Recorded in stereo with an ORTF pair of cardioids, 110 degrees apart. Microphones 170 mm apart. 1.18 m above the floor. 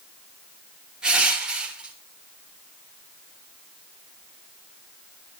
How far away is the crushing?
About 5.5 m.